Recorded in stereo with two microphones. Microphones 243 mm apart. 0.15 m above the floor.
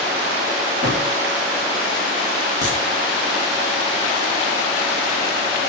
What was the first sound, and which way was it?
A drawer, 35° right (ahead or behind).